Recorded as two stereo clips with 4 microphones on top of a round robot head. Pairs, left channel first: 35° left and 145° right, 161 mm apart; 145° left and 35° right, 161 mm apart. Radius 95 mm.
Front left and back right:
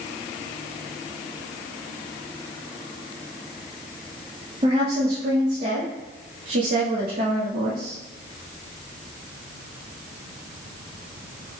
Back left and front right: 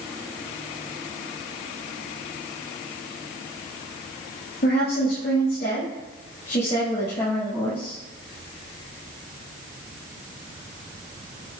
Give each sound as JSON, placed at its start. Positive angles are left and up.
{"t": 4.6, "sound": "a woman speaking", "azimuth_deg": 160, "distance_m": 2.5}